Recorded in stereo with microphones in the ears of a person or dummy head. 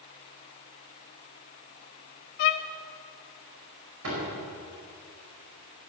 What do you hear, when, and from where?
2.4 s a violin: 40° left (ahead or behind), 0.6 m
4.0 s a door slam: 75° right (ahead or behind), 5 m